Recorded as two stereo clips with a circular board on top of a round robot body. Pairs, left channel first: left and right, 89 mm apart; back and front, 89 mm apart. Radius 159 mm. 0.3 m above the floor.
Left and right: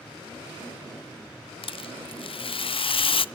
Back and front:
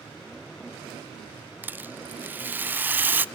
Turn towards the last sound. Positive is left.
turn(degrees=70)